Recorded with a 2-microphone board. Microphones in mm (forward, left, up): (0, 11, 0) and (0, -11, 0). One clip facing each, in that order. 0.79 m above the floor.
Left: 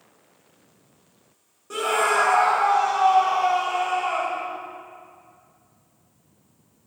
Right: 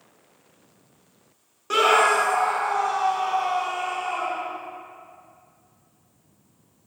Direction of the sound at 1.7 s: 50° right (ahead or behind).